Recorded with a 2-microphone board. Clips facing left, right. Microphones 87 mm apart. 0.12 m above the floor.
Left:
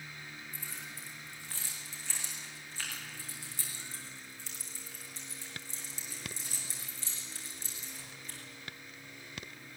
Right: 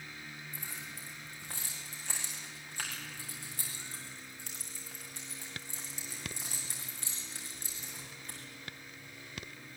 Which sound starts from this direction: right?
Keys jangling, at 0.5 s.